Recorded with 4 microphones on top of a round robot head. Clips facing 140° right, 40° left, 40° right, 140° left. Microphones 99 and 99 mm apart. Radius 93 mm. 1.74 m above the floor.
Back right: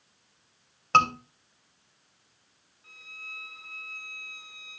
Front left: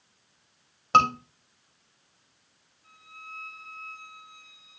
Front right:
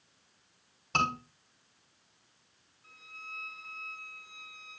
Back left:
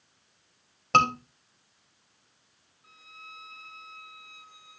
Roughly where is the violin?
Behind right.